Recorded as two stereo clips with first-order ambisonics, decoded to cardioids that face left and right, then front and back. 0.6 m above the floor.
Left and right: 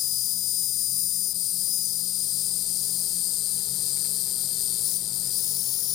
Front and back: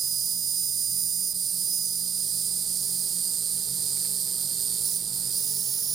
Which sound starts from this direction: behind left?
An insect, at 0.0 s.